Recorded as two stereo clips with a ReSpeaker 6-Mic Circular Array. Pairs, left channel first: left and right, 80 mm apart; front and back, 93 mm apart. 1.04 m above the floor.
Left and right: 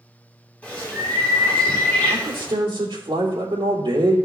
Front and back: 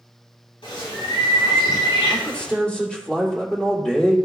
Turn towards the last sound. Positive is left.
turn(degrees=-80)